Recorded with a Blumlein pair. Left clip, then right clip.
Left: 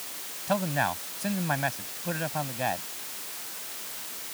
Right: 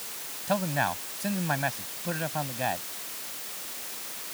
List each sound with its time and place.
0.5 s a man speaking: straight ahead